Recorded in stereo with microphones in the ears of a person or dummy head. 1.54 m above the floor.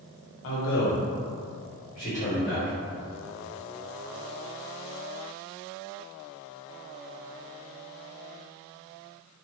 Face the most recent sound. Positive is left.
turn(degrees=20)  # may be behind; listen again after turning